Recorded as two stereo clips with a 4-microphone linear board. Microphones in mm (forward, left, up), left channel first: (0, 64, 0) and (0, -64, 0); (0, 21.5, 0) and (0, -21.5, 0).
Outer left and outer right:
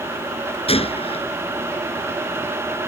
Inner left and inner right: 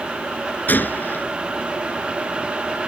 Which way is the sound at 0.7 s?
50° left (ahead or behind).